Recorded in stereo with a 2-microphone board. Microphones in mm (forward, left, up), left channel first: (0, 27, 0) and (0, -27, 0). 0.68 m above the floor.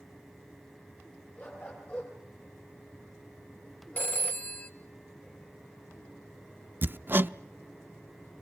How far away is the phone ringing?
About 1.8 m.